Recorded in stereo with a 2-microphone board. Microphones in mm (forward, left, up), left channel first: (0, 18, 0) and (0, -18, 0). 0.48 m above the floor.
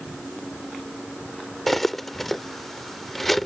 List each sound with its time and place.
1.7 s cutlery clinking: 5° left (ahead or behind)